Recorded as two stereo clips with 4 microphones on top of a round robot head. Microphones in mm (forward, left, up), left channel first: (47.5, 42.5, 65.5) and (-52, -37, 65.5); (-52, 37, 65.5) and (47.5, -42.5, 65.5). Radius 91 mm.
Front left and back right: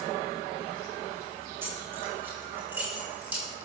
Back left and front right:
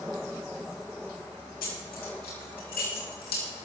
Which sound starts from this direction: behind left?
Keys jangling, at 1.6 s.